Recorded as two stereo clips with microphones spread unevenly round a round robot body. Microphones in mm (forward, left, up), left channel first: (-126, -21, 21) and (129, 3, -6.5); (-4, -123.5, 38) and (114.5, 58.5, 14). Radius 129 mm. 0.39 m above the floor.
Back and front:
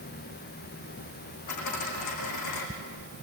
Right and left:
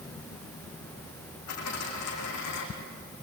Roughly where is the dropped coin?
Behind.